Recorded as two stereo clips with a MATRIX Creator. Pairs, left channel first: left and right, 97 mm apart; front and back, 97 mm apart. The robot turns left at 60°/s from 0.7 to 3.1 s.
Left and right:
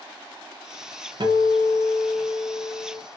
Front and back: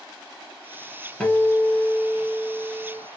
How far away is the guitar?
About 0.6 m.